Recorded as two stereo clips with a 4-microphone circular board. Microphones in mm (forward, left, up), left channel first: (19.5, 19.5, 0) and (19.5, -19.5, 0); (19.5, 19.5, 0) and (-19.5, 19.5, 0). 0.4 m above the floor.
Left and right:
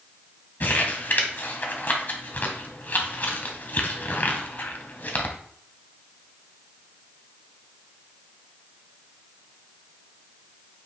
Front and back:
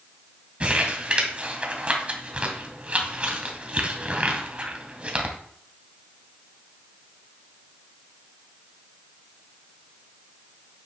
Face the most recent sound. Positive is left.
turn(degrees=125)